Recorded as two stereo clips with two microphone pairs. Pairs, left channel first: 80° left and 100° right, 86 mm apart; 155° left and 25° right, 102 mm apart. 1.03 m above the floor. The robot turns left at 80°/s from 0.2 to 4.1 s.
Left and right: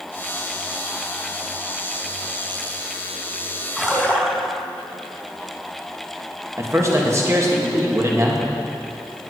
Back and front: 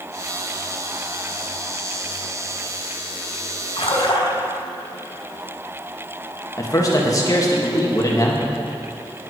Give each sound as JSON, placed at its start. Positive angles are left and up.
{"t": 3.8, "sound": "a splash", "azimuth_deg": 180, "distance_m": 1.6}
{"t": 6.6, "sound": "a man speaking", "azimuth_deg": -150, "distance_m": 1.5}